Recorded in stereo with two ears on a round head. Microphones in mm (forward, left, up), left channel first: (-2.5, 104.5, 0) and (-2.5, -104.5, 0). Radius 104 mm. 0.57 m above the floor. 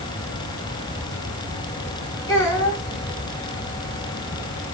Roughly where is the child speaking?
Centre.